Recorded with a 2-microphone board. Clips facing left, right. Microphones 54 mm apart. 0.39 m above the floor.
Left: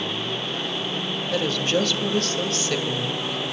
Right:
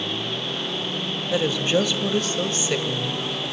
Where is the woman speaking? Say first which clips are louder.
Right 2 dB; 10° right (ahead or behind), 1.6 m.